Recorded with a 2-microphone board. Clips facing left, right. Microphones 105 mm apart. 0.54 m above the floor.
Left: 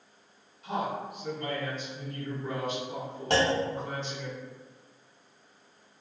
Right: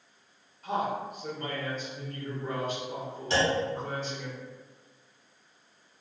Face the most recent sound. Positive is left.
turn(degrees=60)  # may be behind; listen again after turning